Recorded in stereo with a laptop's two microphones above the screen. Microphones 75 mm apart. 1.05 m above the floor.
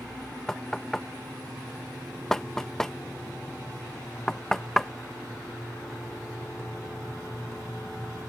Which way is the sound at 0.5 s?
5° left (ahead or behind).